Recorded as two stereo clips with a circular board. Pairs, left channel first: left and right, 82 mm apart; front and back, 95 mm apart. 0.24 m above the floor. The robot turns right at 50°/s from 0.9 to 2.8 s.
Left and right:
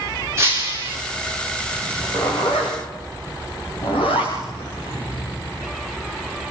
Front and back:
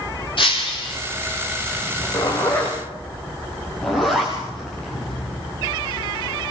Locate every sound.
0.4 s breaking glass: 30° right, 7 m; by 1.0 s 25° right, 7 m
1.8 s a zipper: 40° left, 8 m; by 5.5 s 90° left, 8 m